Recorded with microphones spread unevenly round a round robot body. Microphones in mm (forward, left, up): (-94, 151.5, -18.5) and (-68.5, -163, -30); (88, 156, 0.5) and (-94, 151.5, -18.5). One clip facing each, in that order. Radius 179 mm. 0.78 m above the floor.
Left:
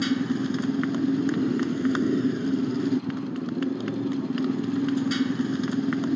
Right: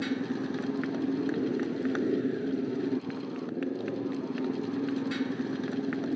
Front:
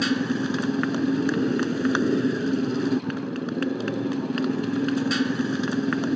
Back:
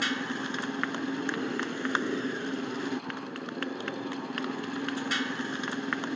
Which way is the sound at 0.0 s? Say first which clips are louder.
Left 6 dB, front 10 dB; 45° left.